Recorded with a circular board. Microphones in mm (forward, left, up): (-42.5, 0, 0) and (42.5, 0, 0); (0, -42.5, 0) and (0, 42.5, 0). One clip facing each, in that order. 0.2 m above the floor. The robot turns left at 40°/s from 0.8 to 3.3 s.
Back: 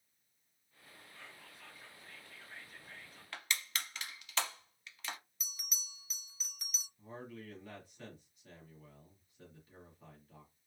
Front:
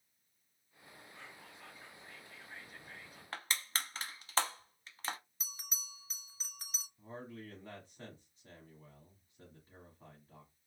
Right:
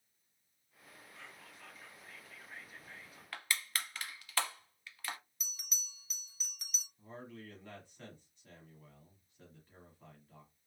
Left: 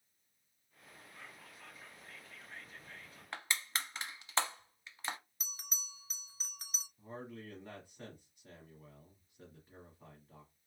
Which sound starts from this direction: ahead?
A man speaking, at 7.0 s.